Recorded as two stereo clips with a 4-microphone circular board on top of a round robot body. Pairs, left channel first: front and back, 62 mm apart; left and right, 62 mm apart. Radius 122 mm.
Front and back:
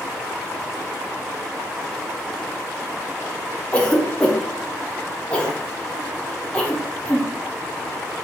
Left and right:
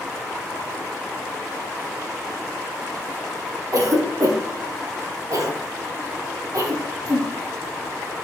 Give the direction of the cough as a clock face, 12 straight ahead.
2 o'clock.